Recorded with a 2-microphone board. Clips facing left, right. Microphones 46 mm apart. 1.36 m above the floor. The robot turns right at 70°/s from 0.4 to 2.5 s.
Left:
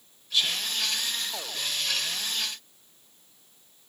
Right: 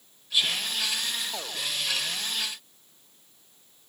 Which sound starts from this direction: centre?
Whispering, at 0.3 s.